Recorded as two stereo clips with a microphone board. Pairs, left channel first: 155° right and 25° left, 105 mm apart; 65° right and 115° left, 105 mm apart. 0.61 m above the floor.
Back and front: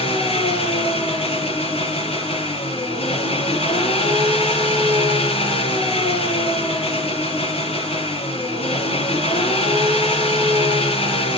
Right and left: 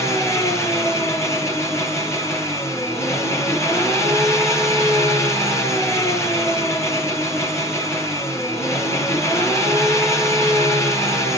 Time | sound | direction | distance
0.0 | an engine running | 130° right | 8.5 m